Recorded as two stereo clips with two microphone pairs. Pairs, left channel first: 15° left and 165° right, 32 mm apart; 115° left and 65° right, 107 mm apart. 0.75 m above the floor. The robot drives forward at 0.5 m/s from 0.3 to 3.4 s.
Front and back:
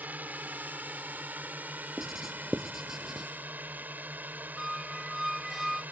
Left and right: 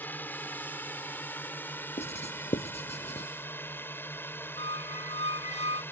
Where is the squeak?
115° left.